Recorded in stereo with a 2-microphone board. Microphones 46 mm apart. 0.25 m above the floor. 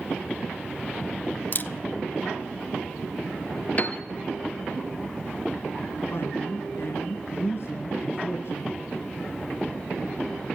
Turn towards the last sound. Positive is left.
turn(degrees=65)  # may be behind; listen again after turning